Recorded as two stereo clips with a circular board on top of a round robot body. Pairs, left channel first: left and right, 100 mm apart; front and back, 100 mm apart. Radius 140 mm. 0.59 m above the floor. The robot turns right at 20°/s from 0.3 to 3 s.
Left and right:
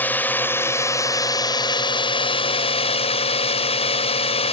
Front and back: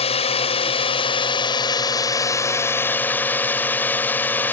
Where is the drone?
20° left; by 4.5 s 70° left.